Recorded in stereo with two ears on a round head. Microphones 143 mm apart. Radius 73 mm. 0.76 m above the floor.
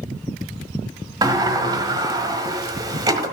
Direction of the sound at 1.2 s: 25° right (ahead or behind).